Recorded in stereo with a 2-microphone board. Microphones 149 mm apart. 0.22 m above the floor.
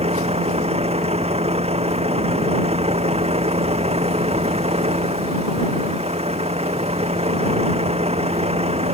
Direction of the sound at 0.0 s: 40° right (ahead or behind).